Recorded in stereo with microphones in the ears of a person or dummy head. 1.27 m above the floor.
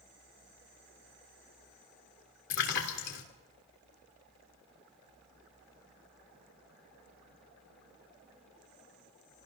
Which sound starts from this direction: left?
A splash, at 2.5 s.